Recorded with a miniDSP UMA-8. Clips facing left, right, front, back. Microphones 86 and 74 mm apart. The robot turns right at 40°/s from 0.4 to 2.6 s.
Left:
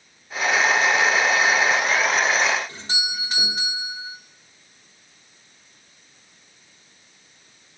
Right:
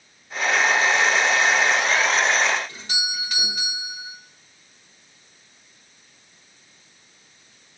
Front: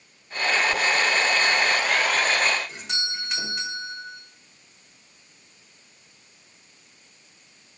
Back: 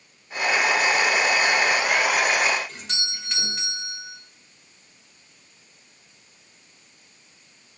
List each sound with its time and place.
2.7 s a doorbell: 75° left, 1.7 m